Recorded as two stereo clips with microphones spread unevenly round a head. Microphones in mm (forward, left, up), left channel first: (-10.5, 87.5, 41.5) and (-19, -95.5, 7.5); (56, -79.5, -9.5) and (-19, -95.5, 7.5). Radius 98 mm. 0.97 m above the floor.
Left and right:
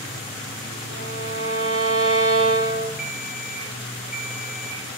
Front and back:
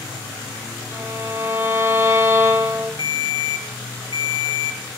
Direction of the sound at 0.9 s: 110° right.